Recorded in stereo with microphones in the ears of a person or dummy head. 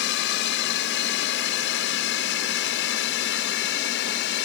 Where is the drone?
65° left (ahead or behind).